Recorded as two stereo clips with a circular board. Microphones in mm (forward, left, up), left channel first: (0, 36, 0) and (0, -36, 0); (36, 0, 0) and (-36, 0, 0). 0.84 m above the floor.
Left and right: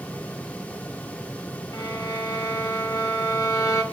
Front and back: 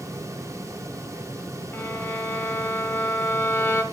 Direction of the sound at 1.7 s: 60° left.